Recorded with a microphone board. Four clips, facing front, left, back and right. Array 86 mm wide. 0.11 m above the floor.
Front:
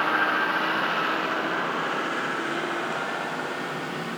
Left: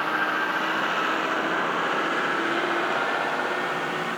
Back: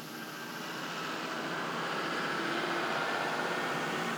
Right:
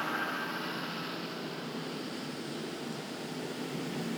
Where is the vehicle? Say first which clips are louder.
Left 9 dB, front 19 dB; 30° left; by 4.2 s 85° left.